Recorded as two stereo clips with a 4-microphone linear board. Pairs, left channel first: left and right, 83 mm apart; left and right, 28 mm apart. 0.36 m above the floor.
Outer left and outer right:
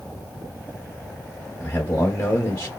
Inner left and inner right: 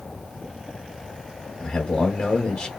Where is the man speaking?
20° left (ahead or behind), 1.3 m.